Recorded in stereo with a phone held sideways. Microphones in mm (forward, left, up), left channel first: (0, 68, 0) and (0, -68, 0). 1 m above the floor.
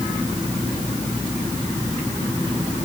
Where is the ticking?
No ticking in this recording.